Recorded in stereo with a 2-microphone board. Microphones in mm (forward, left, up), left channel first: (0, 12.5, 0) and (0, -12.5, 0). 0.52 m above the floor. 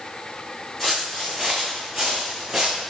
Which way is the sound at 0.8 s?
5° right (ahead or behind).